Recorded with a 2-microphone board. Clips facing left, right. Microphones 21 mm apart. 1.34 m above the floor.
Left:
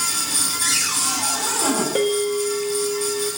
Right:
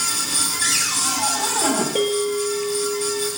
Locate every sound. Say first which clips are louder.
0.6 s a cupboard door: right 1 dB; 15° right (ahead or behind), 5 m
1.9 s a bell: even; 35° left (ahead or behind), 4.5 m